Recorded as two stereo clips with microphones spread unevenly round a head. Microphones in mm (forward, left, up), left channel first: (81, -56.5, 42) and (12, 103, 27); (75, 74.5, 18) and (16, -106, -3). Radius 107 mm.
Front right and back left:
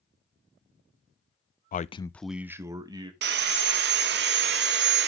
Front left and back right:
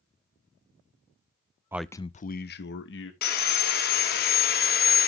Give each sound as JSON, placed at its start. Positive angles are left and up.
{"t": 1.7, "sound": "a man speaking", "azimuth_deg": -40, "distance_m": 0.5}
{"t": 3.2, "sound": "sawing", "azimuth_deg": 100, "distance_m": 0.9}